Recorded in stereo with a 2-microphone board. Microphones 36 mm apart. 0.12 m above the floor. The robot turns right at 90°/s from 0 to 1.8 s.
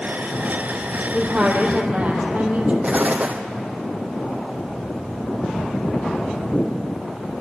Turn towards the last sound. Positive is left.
turn(degrees=-55)  # may be behind; listen again after turning